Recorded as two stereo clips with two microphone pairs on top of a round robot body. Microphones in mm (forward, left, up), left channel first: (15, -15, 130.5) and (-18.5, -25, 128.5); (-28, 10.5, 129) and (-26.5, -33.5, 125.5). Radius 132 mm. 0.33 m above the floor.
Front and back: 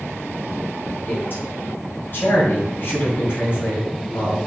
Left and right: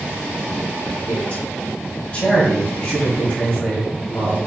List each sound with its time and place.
1.1 s a man speaking: 30° left, 2.5 m